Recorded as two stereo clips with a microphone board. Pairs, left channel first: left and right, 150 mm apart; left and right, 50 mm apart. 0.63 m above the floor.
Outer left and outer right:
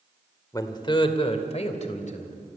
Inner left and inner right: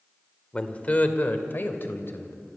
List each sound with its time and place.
0.5 s a man speaking: 25° left (ahead or behind), 1.9 m; by 2.4 s 60° left (ahead or behind), 3 m